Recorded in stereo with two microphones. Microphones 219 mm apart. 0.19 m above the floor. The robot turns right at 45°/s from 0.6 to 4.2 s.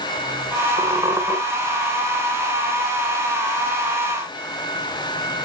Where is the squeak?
25° right (ahead or behind), 1.4 m; by 1.4 s centre (ahead or behind), 1.4 m.